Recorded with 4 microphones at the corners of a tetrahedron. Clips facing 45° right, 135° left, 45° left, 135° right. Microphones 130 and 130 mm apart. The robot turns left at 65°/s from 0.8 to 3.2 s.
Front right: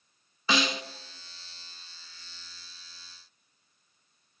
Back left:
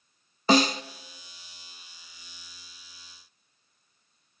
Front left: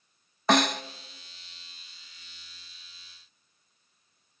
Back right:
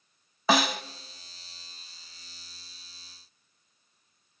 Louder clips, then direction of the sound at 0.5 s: Back left 7 dB, front left 1 dB; 140° left.